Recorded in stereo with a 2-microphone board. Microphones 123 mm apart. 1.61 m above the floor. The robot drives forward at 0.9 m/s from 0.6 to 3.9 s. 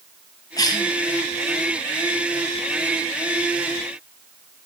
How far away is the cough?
About 1.7 m.